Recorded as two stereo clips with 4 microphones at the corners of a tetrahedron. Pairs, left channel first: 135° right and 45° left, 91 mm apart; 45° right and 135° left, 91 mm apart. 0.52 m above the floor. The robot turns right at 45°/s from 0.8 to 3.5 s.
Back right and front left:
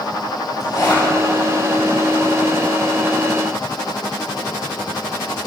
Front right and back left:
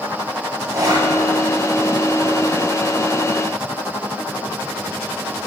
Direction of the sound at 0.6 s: Straight behind.